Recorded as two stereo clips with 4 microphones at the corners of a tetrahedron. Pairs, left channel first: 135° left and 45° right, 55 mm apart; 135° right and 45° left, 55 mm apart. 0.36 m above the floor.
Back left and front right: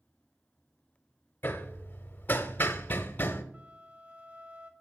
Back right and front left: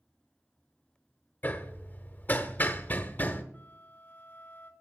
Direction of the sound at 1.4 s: Straight behind.